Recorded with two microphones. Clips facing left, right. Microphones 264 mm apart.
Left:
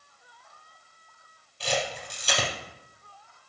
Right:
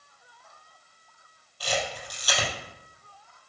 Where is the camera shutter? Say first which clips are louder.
Left 1 dB; 25° left (ahead or behind), 3.5 m.